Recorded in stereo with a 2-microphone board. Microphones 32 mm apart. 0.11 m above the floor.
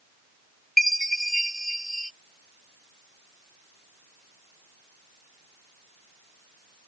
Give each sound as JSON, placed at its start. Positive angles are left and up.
{"t": 0.8, "sound": "a chime", "side_deg": 5}